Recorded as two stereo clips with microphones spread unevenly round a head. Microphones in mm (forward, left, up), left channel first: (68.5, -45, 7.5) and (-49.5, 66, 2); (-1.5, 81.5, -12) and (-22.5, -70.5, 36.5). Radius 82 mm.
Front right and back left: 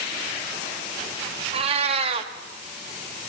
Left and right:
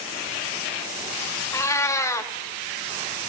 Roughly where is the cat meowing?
Behind.